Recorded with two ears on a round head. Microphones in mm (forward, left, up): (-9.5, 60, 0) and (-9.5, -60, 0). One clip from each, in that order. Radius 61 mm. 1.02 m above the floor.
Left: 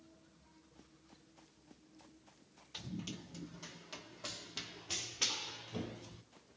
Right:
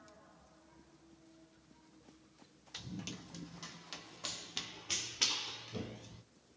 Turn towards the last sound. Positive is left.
turn(degrees=0)  # may be behind; listen again after turning